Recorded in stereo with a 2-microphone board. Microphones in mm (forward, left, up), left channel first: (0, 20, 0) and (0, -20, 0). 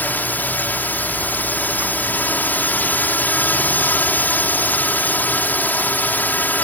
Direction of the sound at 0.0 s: 50° left (ahead or behind).